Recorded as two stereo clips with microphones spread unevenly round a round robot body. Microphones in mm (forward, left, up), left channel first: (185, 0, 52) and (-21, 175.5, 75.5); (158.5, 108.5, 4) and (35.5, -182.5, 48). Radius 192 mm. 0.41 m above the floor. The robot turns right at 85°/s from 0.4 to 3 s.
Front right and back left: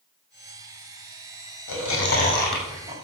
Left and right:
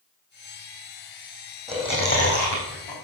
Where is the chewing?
25° right, 5.5 m; by 3.0 s 90° left, 5.5 m.